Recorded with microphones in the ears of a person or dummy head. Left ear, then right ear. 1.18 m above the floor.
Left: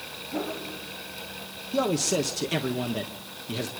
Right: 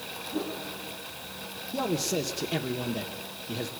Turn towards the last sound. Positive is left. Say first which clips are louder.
# left 4 dB
turn(degrees=45)  # may be behind; listen again after turning